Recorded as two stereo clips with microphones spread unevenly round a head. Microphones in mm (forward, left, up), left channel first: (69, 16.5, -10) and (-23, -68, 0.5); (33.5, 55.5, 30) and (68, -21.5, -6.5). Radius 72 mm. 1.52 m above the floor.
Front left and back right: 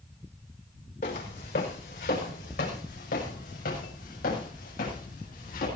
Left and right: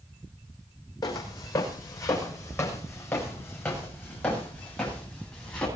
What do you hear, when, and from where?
1.0 s footsteps: 75° left, 5 m; by 5.7 s 35° left, 10.5 m